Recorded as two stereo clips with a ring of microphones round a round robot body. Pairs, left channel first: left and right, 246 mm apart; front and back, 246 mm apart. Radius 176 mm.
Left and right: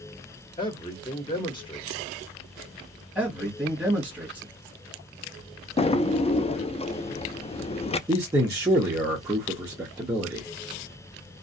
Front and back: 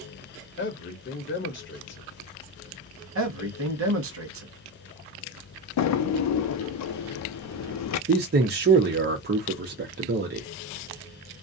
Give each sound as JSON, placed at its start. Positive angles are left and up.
{"t": 0.6, "sound": "a man speaking", "azimuth_deg": 25, "distance_m": 1.0}
{"t": 3.1, "sound": "a man speaking", "azimuth_deg": -175, "distance_m": 1.1}
{"t": 5.8, "sound": "a drawer", "azimuth_deg": 20, "distance_m": 0.5}
{"t": 8.1, "sound": "a man speaking", "azimuth_deg": -165, "distance_m": 0.6}